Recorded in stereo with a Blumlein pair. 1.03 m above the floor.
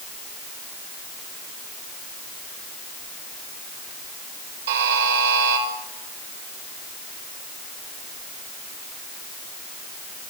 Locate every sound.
4.7 s a buzzer: 65° right, 5 m